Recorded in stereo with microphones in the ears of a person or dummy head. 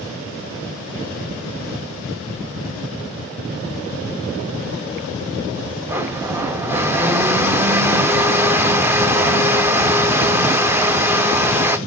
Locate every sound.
5.9 s a blender: 10° right (ahead or behind), 0.6 m